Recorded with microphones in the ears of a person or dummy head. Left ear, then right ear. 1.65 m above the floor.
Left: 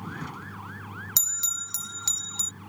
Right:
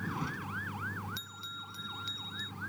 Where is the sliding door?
No sliding door in this recording.